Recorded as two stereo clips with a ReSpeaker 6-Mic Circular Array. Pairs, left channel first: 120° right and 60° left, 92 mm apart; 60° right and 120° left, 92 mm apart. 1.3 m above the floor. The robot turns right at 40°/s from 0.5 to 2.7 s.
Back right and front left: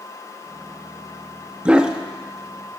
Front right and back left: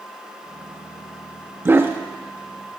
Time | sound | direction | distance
1.6 | a dog barking | 120° left | 0.7 m